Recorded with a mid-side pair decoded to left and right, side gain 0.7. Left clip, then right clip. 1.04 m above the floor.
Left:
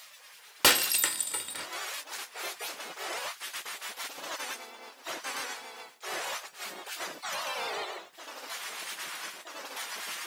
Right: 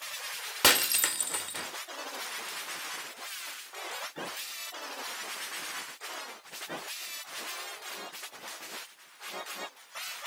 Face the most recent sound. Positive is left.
turn(degrees=-5)